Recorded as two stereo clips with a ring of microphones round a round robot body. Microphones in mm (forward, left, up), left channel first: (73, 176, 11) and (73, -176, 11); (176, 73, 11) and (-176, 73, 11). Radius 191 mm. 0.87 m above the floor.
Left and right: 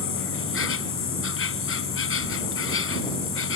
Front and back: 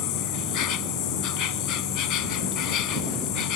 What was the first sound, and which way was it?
An insect, 35° left.